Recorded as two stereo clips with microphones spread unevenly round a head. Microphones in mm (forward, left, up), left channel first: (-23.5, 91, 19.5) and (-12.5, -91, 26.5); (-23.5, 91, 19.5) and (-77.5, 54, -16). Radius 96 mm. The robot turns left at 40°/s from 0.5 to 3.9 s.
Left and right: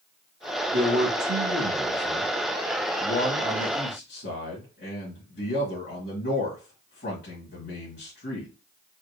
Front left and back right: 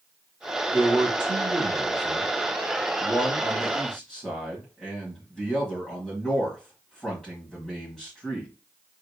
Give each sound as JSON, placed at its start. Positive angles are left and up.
{"t": 0.7, "sound": "a man speaking", "azimuth_deg": -110, "distance_m": 2.0}